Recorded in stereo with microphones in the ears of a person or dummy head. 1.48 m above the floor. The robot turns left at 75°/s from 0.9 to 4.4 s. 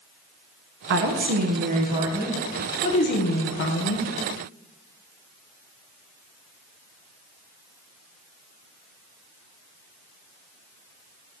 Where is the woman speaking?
75° right, 0.7 m; by 4.1 s 50° left, 0.7 m.